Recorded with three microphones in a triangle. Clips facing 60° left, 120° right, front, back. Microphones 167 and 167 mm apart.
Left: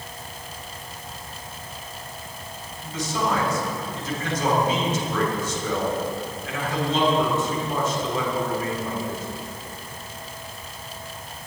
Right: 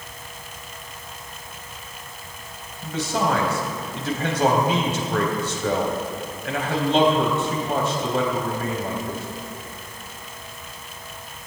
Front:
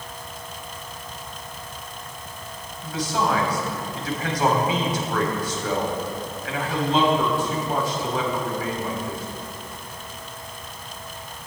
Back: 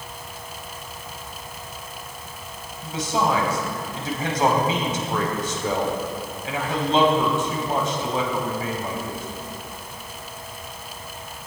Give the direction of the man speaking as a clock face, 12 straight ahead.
4 o'clock.